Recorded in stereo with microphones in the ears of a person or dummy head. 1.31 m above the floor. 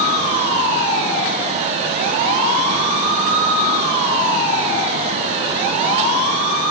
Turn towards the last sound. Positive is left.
No sound to turn to.